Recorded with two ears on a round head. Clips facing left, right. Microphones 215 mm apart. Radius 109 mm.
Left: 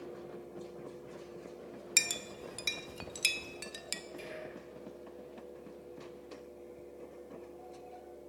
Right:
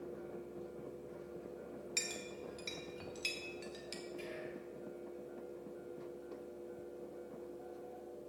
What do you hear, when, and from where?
2.0 s a clink: 70° left (ahead or behind), 0.6 m
4.2 s whispering: 20° left (ahead or behind), 3 m